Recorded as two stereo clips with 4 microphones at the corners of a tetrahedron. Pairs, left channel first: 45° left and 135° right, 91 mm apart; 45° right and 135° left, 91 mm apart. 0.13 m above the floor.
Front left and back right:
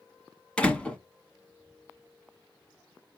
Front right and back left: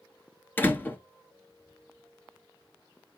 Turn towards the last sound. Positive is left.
turn(degrees=-20)